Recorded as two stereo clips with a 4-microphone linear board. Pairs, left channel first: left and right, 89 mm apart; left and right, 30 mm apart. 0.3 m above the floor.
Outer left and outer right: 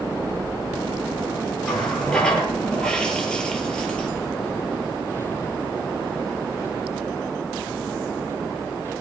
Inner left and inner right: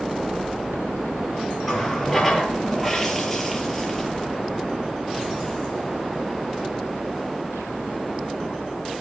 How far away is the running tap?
About 4.5 m.